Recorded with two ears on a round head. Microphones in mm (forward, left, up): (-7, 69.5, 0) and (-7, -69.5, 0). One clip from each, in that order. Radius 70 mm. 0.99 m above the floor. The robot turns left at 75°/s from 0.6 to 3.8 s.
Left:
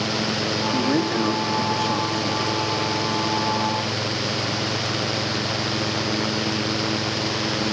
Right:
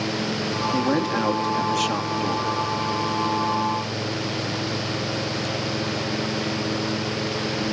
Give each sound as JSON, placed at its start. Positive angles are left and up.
{"t": 0.7, "sound": "a man speaking", "azimuth_deg": -15, "distance_m": 2.0}